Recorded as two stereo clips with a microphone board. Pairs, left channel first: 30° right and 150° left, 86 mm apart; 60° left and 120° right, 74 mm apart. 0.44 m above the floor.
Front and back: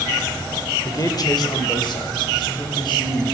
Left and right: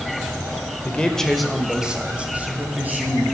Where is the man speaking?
5° right, 1.6 m; by 3.2 s 55° right, 4 m.